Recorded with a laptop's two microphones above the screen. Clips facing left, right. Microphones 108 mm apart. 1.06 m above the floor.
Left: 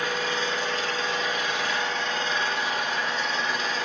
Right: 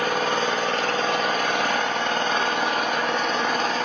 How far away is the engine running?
About 1.4 m.